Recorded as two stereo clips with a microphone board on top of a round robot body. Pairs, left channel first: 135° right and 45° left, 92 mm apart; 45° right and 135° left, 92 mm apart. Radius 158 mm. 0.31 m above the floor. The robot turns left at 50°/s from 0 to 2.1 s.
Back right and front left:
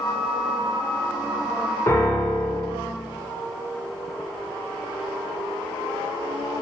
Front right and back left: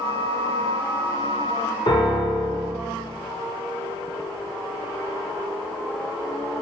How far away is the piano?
About 0.8 m.